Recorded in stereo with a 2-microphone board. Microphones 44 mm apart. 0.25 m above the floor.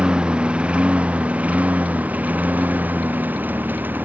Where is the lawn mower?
20° right (ahead or behind); by 4.1 s 45° right (ahead or behind).